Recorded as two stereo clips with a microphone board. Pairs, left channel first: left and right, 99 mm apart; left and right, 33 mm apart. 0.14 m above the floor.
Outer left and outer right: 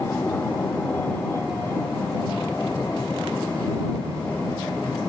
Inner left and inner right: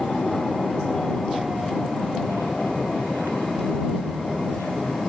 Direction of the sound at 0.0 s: 20° left (ahead or behind).